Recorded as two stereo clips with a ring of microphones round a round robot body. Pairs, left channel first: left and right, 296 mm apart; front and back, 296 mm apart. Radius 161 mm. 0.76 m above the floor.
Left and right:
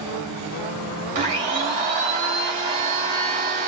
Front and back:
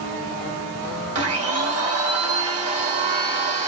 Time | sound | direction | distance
1.1 | a blender | 150° right | 1.6 m